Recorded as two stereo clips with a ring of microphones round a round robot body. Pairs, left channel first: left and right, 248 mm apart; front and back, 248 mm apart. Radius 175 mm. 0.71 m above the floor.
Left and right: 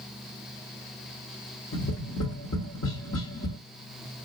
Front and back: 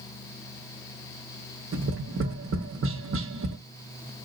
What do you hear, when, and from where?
1.7 s tapping: 145° left, 1.0 m